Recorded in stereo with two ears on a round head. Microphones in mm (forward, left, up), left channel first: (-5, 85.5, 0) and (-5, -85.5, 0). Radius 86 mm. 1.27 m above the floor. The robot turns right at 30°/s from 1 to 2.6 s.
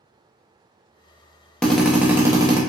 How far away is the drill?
About 0.7 m.